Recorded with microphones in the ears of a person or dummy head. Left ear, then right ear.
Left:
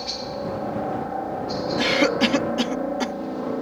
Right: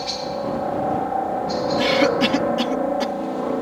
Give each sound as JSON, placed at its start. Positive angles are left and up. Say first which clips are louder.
{"t": 0.0, "sound": "a helicopter", "louder": "right 4 dB", "side_deg": -15}
{"t": 1.8, "sound": "a cough", "louder": "right 1 dB", "side_deg": 20}